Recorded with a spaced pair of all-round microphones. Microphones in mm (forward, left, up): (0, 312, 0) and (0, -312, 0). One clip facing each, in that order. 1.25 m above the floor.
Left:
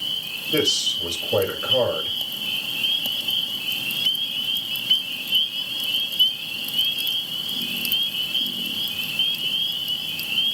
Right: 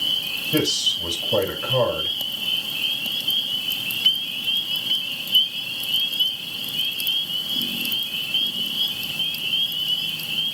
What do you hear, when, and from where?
0.5 s a man speaking: 25° right (ahead or behind), 6.5 m